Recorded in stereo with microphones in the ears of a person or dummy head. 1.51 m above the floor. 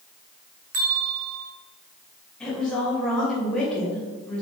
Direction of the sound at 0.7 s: 45° right (ahead or behind).